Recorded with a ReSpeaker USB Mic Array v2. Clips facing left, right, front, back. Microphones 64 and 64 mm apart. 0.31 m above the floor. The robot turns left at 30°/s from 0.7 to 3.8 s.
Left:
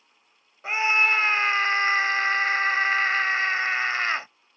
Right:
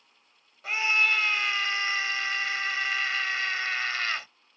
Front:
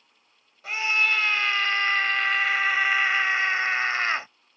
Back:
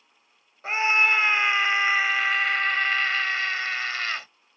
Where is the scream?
140° left; by 4.3 s 50° left.